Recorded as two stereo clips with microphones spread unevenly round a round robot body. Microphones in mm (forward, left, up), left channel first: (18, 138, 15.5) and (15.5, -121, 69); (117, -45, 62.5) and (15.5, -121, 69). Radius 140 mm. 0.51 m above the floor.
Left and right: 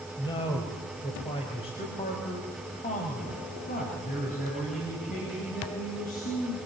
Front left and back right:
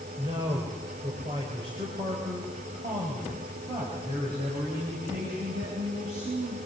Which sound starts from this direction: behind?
A man speaking, at 0.2 s.